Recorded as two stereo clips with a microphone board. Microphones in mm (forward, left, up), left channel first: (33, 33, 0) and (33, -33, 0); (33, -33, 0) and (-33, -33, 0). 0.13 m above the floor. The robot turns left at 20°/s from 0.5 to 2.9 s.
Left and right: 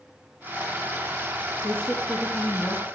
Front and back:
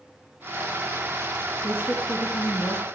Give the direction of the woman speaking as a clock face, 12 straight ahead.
10 o'clock.